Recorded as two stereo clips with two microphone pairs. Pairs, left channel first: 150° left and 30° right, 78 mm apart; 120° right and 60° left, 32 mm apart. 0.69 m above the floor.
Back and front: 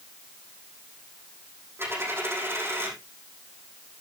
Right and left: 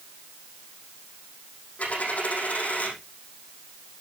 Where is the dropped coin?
85° right, 6 m.